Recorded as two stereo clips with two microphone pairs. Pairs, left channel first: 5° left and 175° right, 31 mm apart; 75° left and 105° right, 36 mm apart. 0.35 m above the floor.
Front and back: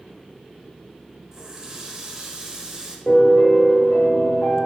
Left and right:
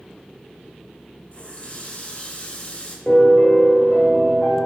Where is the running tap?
125° left, 0.8 m.